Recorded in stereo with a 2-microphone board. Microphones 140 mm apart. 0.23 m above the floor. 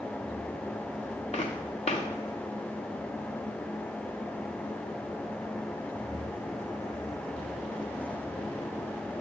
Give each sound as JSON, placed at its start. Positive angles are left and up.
{"t": 1.3, "sound": "footsteps", "side_deg": 50, "distance_m": 1.2}